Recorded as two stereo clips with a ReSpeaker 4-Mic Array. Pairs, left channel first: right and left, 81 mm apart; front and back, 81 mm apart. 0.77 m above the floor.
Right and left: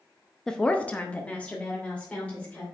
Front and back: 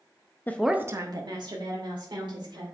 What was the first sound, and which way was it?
A woman speaking, 15° right.